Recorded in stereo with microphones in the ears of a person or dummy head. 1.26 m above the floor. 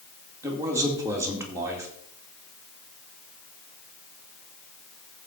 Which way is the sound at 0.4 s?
15° right (ahead or behind).